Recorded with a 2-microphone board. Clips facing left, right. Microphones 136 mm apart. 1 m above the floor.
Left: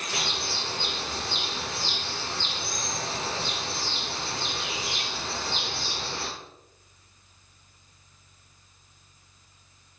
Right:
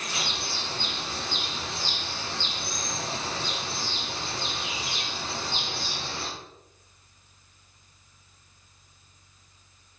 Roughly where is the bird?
Left.